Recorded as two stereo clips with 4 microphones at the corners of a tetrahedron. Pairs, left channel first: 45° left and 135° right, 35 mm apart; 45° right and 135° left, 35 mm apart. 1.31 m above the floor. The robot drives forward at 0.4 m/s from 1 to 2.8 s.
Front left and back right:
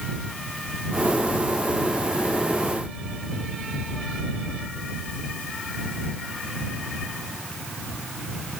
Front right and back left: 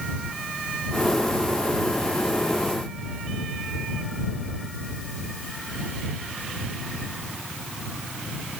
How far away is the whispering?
No whispering in this recording.